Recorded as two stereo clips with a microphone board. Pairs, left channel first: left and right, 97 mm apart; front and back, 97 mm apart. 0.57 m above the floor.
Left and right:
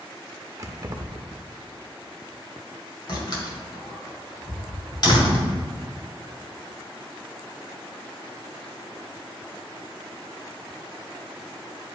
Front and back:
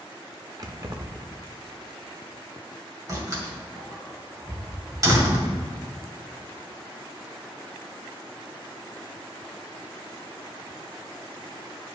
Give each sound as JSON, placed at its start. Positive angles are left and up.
{"t": 0.6, "sound": "keys jangling", "azimuth_deg": -140, "distance_m": 0.8}
{"t": 3.1, "sound": "a door slam", "azimuth_deg": 130, "distance_m": 1.9}
{"t": 5.0, "sound": "a cupboard door", "azimuth_deg": 180, "distance_m": 2.5}